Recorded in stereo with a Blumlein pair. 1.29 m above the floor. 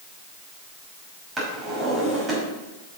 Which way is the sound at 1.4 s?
15° right.